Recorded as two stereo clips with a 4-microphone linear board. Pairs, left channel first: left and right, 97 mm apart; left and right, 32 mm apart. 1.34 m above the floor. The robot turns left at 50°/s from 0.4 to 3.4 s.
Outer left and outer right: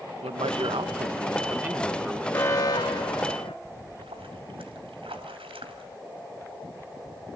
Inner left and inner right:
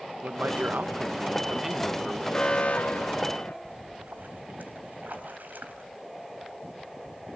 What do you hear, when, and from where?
0.2 s a man speaking: 100° right, 1.2 m; by 2.2 s 170° left, 1.2 m
2.3 s an alarm: 150° left, 3 m; by 3.5 s 100° left, 3 m
3.6 s a splash: 70° right (ahead or behind), 2.5 m